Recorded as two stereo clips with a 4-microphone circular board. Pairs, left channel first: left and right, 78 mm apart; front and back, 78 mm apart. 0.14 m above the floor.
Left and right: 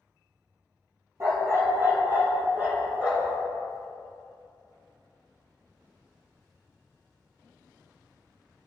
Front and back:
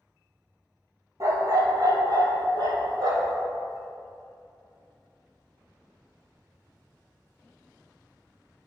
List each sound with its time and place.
1.2 s a dog barking: 135° right, 1.4 m; by 3.4 s 160° right, 2 m